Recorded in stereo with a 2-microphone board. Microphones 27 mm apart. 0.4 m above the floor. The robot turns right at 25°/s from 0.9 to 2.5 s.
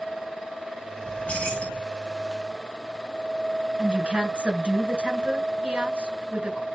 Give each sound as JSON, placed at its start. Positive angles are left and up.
{"t": 1.1, "sound": "keys jangling", "side_deg": 75, "distance_m": 2.5}
{"t": 3.8, "sound": "a woman speaking", "side_deg": -50, "distance_m": 2.0}